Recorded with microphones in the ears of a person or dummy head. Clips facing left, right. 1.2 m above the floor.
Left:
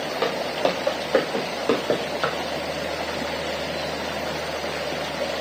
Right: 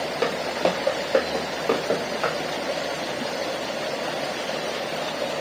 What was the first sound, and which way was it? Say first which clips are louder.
Footsteps: even; 5° right (ahead or behind).